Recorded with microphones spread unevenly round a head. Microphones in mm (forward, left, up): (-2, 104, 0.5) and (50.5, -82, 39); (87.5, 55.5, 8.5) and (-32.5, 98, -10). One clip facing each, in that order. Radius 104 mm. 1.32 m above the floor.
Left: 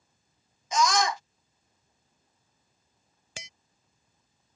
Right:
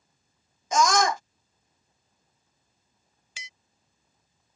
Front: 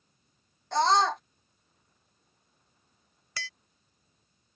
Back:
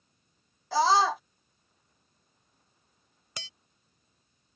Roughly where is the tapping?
Left.